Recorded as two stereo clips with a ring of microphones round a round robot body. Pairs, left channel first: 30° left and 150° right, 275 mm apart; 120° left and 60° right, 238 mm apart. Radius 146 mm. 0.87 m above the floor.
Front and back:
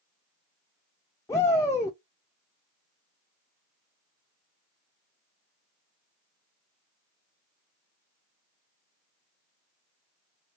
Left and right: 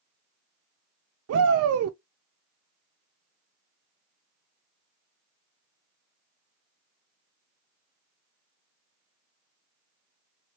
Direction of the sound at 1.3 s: 50° right.